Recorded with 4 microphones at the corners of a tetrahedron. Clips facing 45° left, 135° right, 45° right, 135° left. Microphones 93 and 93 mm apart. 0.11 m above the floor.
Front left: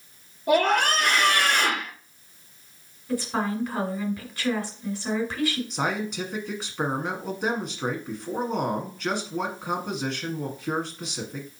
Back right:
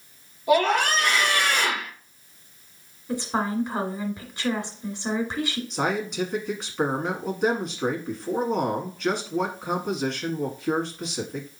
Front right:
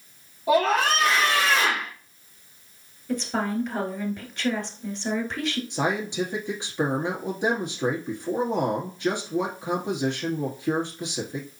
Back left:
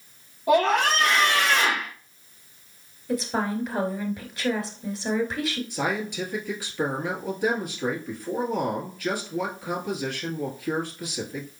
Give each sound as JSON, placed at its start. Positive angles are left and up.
{"t": 0.5, "sound": "a scream", "azimuth_deg": 40, "distance_m": 2.5}
{"t": 3.1, "sound": "a woman speaking", "azimuth_deg": -155, "distance_m": 1.4}
{"t": 5.7, "sound": "a man speaking", "azimuth_deg": -45, "distance_m": 1.2}